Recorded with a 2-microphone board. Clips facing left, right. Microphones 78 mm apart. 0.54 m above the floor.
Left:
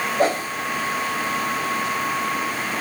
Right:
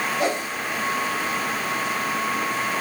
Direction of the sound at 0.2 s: 40° left (ahead or behind).